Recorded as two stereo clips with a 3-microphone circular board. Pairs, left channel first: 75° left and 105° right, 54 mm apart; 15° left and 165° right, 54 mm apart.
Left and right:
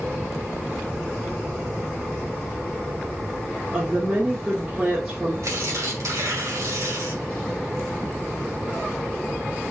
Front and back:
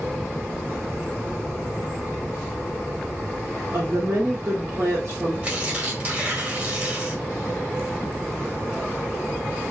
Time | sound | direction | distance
3.7 | a woman speaking | 170° right | 2.5 m
5.4 | tearing paper | 105° right | 2.5 m